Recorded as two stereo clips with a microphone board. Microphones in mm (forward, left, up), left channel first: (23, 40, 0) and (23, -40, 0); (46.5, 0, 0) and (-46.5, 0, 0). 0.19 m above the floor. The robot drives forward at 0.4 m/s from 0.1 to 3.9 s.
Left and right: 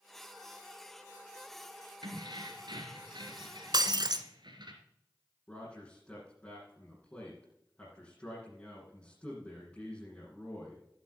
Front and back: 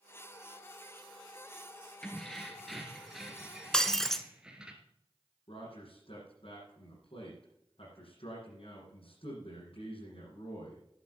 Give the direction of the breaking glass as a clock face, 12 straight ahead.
3 o'clock.